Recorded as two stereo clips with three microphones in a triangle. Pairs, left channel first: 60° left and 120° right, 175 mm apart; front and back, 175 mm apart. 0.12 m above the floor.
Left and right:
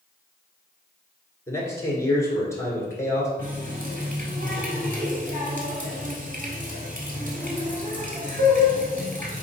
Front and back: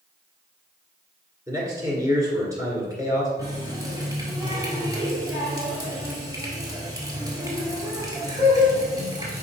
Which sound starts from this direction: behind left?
A man speaking, at 1.5 s.